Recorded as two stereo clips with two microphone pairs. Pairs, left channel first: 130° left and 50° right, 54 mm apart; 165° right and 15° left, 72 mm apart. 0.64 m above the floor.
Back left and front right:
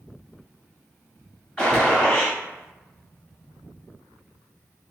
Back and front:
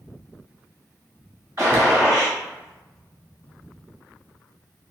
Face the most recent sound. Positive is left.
turn(degrees=55)